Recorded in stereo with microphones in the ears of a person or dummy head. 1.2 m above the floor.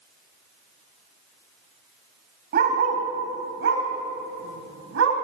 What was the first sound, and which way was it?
A dog barking, 50° right (ahead or behind).